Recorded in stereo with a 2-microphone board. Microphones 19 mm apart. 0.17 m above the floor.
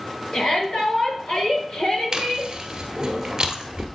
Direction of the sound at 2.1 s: 35° right (ahead or behind).